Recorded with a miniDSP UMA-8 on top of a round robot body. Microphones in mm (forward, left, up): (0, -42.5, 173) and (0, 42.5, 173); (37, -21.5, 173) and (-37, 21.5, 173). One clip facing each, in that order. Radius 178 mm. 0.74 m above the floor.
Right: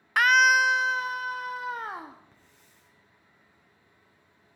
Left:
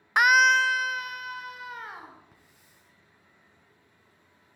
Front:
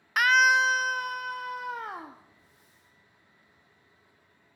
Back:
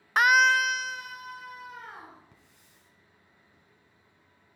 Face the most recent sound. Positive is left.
turn(degrees=170)